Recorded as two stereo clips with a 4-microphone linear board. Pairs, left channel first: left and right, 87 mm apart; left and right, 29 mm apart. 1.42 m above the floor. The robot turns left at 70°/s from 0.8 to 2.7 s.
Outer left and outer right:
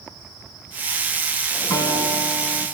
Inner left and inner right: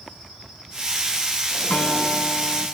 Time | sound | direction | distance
1.7 | a guitar | 140° left | 4 m